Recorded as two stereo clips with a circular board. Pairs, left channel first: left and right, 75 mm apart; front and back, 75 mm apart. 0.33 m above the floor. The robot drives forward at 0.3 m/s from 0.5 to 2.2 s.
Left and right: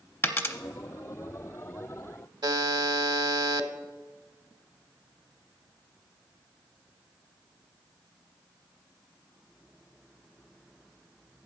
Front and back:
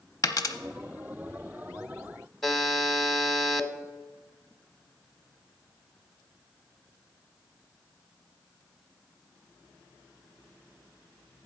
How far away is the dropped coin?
About 0.7 m.